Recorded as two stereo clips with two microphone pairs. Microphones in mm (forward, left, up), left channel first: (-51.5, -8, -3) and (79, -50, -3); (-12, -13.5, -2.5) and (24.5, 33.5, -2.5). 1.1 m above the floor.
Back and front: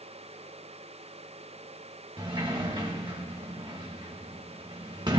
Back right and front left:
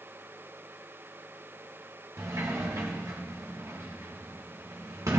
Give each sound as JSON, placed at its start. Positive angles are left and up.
{"t": 2.2, "sound": "a sliding door", "azimuth_deg": 35, "distance_m": 1.3}